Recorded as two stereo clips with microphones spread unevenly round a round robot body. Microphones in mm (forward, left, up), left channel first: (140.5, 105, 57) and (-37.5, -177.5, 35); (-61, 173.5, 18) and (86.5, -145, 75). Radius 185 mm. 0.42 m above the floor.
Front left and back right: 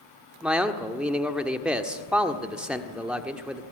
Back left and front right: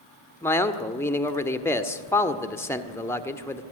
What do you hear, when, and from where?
0.4 s a man speaking: 165° left, 1.5 m